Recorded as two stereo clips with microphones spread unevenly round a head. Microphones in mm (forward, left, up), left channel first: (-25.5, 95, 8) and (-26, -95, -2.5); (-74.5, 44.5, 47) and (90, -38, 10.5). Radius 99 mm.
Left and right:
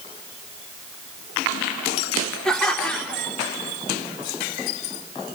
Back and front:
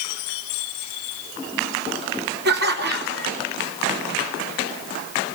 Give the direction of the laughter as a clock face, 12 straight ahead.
12 o'clock.